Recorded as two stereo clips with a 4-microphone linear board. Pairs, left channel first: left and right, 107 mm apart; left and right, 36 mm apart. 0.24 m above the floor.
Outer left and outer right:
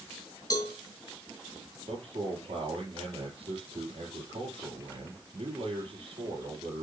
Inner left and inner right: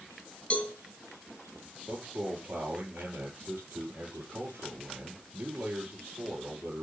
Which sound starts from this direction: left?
A cowbell, at 0.5 s.